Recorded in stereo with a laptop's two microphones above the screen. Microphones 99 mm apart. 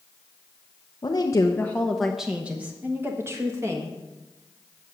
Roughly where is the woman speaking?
Left.